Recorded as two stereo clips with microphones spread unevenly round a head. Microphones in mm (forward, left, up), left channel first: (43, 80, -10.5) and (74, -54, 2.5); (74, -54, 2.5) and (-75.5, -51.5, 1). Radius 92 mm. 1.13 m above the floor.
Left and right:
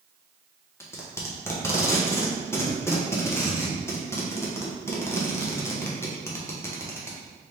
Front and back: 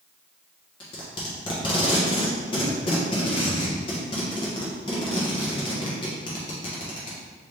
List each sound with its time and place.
0.8 s tape being pulled: 45° left, 0.8 m